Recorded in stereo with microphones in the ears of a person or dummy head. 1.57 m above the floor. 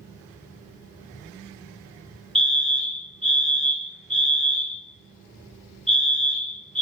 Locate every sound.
0.0 s a fan: 15° right (ahead or behind), 2 m
2.4 s a fire alarm: centre (ahead or behind), 2.5 m